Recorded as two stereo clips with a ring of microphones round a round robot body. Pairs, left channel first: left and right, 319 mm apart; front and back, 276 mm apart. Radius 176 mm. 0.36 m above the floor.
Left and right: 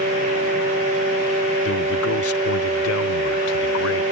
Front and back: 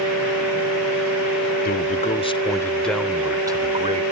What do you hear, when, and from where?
1.6 s a man speaking: 50° left; by 4.0 s 120° left